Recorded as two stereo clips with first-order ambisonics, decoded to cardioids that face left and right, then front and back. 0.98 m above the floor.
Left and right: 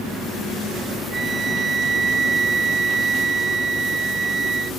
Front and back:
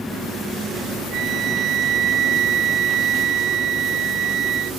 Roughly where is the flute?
Behind right.